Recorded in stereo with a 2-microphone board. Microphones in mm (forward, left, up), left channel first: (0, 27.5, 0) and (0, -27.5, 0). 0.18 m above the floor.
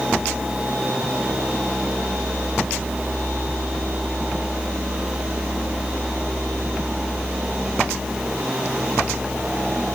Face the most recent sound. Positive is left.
No sound to turn to.